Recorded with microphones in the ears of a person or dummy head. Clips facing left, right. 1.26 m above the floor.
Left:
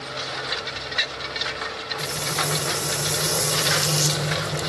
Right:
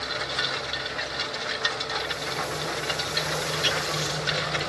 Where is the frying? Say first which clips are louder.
Left 2 dB; 50° left (ahead or behind), 1.9 m.